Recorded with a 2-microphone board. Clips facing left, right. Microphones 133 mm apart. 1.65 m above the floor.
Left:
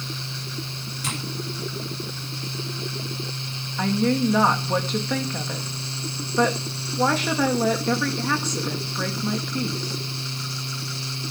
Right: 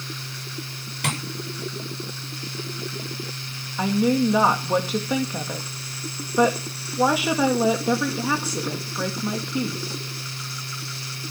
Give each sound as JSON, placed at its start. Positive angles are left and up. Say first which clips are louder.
{"t": 1.0, "sound": "tapping", "louder": "right 4 dB", "side_deg": -75, "distance_m": 7.5}
{"t": 3.8, "sound": "a woman speaking", "louder": "right 1 dB", "side_deg": -10, "distance_m": 2.0}